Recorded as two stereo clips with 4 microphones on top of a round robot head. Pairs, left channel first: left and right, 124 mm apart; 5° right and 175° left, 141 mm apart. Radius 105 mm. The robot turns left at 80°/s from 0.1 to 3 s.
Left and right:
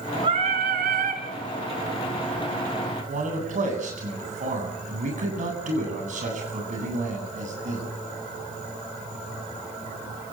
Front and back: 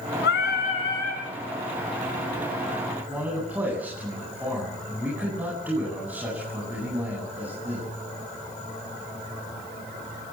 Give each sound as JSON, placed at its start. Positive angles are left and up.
{"t": 0.2, "sound": "singing", "azimuth_deg": -20, "distance_m": 3.5}
{"t": 3.1, "sound": "a man speaking", "azimuth_deg": -105, "distance_m": 9.5}